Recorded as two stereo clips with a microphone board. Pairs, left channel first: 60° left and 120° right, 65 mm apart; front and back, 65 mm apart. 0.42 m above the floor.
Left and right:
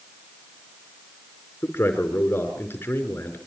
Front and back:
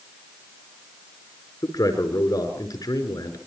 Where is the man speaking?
5° left, 5.5 m.